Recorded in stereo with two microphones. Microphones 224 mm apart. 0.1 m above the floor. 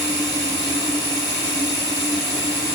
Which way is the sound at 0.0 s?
20° right (ahead or behind).